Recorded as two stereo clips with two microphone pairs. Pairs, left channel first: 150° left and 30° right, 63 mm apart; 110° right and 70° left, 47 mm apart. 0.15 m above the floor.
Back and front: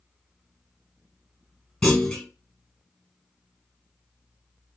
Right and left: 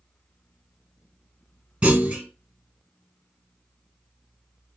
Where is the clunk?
90° left, 1.6 m.